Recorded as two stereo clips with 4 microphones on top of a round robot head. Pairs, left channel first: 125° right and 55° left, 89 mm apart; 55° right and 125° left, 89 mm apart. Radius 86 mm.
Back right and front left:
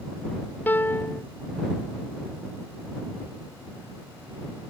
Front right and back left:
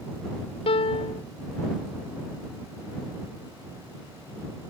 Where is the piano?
55° right.